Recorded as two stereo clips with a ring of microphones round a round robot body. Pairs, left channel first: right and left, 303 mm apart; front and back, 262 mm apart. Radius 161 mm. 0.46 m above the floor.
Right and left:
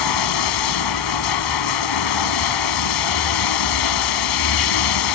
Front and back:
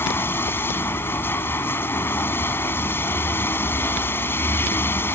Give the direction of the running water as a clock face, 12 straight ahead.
3 o'clock.